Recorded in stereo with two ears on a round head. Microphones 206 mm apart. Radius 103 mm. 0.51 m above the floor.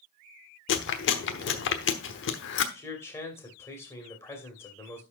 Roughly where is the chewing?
Left.